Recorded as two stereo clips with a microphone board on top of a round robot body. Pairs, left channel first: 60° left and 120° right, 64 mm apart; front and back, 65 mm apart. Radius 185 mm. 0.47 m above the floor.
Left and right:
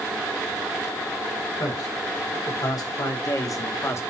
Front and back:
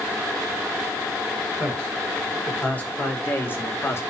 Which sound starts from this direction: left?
A man speaking, at 1.6 s.